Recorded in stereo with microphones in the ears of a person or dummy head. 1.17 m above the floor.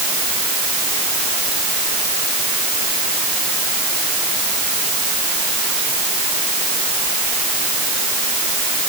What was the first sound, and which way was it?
Only background noise.